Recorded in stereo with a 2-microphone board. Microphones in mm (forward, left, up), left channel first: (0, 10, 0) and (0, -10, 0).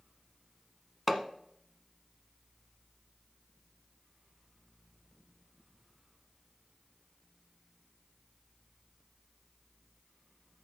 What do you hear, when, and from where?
1.1 s hammering: 5° right (ahead or behind), 0.9 m